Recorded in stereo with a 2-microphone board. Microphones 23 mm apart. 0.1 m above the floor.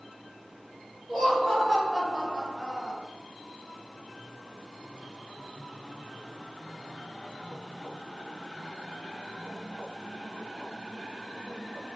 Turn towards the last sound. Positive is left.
turn(degrees=-15)  # may be behind; listen again after turning